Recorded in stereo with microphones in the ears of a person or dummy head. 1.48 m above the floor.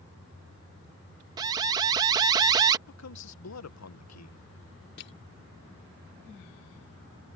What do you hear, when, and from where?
1.4 s an alarm: 25° right (ahead or behind)
2.9 s a man speaking: 85° left
5.0 s crushing: 60° left (ahead or behind)